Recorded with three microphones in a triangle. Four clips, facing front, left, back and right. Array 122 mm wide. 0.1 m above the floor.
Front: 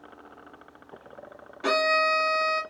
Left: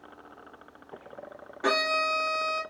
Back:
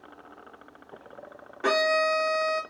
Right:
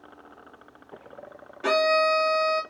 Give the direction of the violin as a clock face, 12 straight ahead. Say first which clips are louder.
Right 6 dB, even; 7 o'clock.